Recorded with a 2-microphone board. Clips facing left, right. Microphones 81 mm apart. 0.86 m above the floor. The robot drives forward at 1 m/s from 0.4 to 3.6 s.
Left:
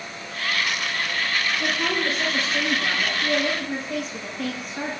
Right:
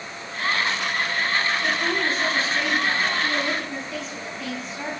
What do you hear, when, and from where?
1.6 s a woman speaking: 80° left, 9.5 m; by 4.9 s 65° left (ahead or behind), 10 m